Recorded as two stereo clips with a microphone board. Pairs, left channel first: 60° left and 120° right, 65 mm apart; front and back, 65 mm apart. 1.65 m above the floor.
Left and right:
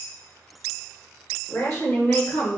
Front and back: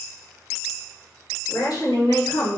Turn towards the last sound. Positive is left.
turn(degrees=0)